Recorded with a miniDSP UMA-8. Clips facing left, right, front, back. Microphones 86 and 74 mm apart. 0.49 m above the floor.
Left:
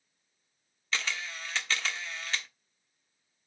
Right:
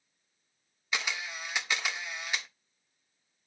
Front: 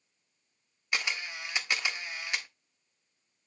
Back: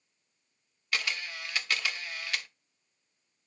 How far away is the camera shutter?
About 1.0 m.